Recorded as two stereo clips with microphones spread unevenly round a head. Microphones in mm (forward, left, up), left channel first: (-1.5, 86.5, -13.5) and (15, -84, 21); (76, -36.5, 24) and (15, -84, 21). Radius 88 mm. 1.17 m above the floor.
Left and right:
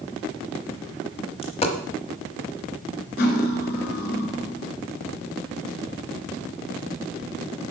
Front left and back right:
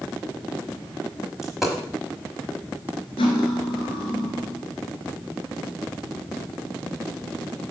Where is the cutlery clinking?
60° left, 2 m.